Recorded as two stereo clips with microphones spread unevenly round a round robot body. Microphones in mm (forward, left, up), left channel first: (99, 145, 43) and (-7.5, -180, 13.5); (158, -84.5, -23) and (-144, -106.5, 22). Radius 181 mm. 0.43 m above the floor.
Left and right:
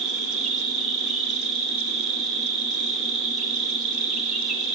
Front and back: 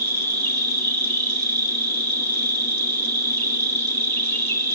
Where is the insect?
165° left, 8 m.